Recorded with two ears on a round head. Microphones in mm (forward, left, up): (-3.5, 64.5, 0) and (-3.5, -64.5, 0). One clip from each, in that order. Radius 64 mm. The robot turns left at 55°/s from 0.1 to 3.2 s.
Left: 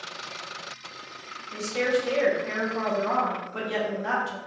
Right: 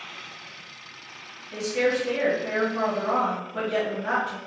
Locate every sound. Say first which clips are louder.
1.5 s a woman speaking: right 1 dB; 145° left, 1.3 m; by 4.4 s 50° left, 1.3 m